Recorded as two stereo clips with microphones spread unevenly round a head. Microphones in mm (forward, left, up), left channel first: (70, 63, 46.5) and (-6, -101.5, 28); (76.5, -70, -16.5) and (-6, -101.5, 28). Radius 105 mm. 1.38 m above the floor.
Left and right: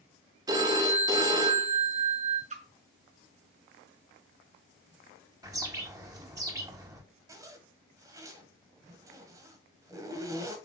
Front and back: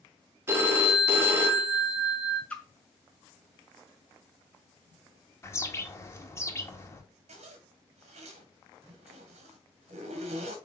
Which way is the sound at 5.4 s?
40° right.